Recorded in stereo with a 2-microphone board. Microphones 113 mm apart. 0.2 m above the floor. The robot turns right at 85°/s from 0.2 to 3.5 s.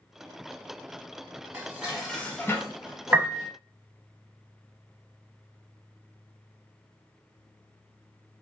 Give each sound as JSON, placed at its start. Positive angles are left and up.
{"t": 1.5, "sound": "dishes clattering", "azimuth_deg": -40, "distance_m": 1.0}
{"t": 3.1, "sound": "a piano", "side_deg": -20, "distance_m": 0.5}